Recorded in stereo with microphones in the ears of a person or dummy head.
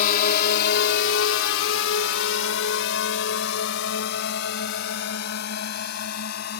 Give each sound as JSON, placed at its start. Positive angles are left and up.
{"t": 0.0, "sound": "a drone", "side_deg": 50}